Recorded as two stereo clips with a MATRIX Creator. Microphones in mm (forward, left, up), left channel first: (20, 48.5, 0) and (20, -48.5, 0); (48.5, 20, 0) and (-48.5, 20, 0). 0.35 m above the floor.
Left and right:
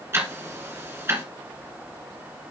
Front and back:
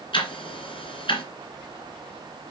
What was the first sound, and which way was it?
Ticking, 25° right.